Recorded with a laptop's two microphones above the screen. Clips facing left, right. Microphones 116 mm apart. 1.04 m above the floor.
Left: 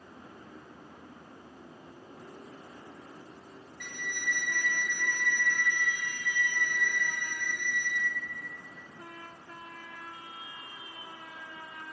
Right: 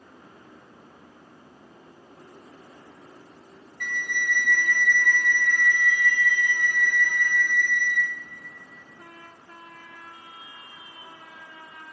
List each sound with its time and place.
3.8 s a flute: 50° right (ahead or behind), 1.3 m